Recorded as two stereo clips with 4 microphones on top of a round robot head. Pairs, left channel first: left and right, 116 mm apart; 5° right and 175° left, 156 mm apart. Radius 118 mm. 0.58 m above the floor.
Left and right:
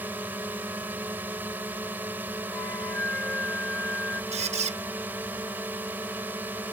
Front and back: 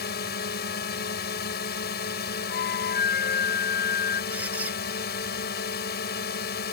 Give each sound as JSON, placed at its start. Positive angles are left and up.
{"t": 0.0, "sound": "a drone", "azimuth_deg": -15}
{"t": 2.5, "sound": "a flute", "azimuth_deg": 5}
{"t": 4.3, "sound": "a squeak", "azimuth_deg": -100}